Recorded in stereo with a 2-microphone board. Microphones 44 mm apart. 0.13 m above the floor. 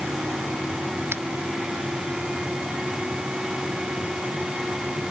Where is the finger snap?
65° right (ahead or behind).